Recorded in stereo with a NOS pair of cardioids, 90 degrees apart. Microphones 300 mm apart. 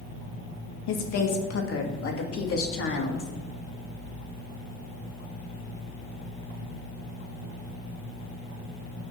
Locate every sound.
0.9 s a woman speaking: 60° left, 2 m; by 3.3 s 40° left, 3.5 m